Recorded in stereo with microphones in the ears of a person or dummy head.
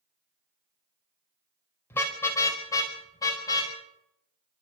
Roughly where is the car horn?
Centre.